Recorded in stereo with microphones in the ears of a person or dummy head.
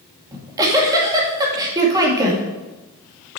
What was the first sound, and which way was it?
A giggle, 20° right (ahead or behind).